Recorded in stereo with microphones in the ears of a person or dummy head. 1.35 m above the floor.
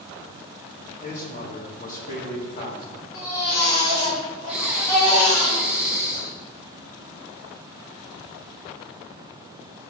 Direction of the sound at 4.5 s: 5° right (ahead or behind).